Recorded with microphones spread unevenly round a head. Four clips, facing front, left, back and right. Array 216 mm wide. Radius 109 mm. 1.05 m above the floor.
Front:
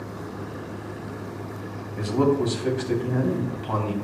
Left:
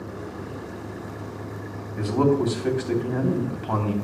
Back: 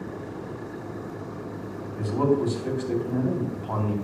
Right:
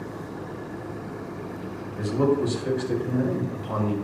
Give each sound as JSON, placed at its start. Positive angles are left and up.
{"t": 2.0, "sound": "a man speaking", "azimuth_deg": 55, "distance_m": 2.5}